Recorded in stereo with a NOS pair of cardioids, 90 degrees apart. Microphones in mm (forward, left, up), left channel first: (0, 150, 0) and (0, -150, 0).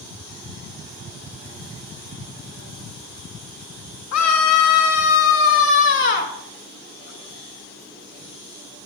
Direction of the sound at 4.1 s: 70° left.